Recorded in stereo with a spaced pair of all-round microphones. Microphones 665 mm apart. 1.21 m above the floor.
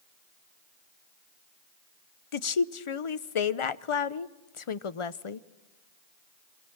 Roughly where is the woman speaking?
Left.